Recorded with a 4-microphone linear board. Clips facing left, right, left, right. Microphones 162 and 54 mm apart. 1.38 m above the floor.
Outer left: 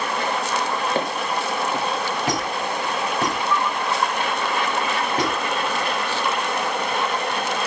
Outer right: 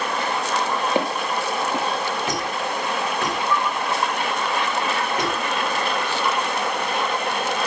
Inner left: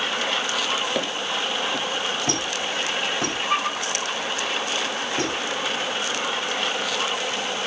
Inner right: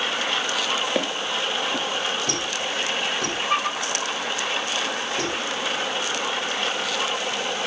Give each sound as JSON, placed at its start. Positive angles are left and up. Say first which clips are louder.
{"t": 0.9, "sound": "footsteps", "louder": "outer right 1 dB, inner right 1 dB", "side_deg": -15, "distance_m": 1.4}
{"t": 2.3, "sound": "a squeak", "louder": "outer left 1 dB, inner left 1 dB", "side_deg": 35, "distance_m": 3.0}